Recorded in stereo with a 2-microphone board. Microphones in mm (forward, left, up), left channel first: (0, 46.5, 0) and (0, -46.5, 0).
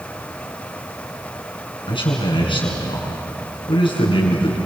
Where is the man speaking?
65° left (ahead or behind), 6 m.